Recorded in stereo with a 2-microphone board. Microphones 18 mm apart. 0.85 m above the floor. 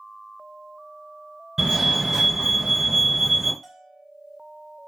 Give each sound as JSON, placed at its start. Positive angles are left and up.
{"t": 1.6, "sound": "a fire alarm", "side_deg": -30, "distance_m": 1.6}
{"t": 3.6, "sound": "a bell", "side_deg": 15, "distance_m": 0.7}